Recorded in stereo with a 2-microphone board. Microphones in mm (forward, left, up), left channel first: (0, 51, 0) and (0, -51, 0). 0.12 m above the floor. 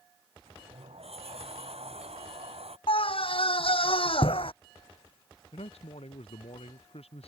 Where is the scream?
65° left (ahead or behind).